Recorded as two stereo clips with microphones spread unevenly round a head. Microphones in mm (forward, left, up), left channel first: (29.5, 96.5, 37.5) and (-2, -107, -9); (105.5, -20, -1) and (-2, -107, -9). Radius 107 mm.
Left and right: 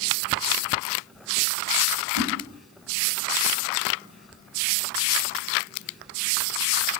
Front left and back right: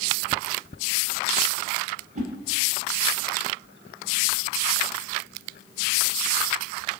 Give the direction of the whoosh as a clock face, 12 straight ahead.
4 o'clock.